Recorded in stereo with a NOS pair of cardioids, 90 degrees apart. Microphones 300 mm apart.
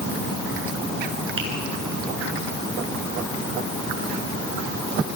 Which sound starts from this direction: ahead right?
A finger snap, at 1.4 s.